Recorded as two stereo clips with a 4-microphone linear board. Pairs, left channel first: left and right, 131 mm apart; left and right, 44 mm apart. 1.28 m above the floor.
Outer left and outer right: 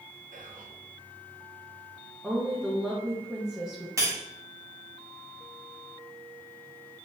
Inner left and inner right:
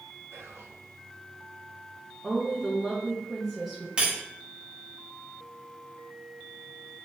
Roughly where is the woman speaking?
Centre.